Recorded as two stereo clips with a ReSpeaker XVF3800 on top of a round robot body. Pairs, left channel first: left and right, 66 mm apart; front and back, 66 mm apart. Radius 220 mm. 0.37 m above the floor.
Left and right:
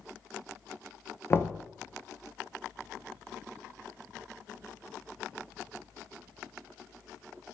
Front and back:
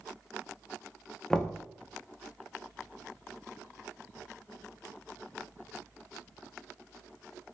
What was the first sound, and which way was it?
Knocking, 70° left.